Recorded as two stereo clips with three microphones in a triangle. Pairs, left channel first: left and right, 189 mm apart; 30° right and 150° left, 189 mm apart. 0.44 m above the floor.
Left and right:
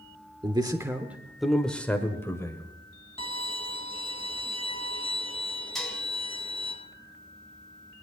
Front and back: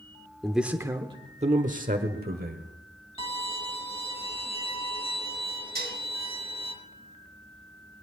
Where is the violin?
30° left, 1.8 m.